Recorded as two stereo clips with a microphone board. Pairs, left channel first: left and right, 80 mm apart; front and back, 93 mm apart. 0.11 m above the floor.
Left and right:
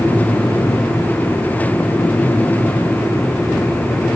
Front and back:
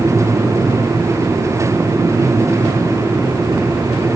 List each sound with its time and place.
Only background noise.